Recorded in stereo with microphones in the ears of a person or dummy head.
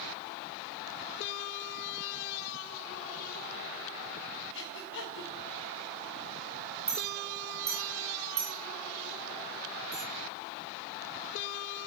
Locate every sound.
4.5 s breathing: 60° left (ahead or behind), 2.5 m
6.9 s a clink: centre (ahead or behind), 4 m